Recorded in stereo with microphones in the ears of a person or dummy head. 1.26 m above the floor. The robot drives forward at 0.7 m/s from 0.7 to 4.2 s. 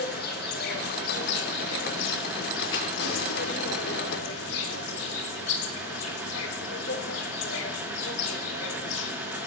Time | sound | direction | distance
0.0 | an insect | 65° left (ahead or behind) | 4 m
2.7 | a rattle | 80° left | 8.5 m